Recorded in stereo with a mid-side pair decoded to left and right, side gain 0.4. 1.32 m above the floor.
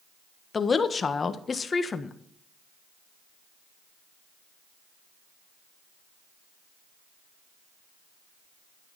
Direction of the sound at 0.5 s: 40° left.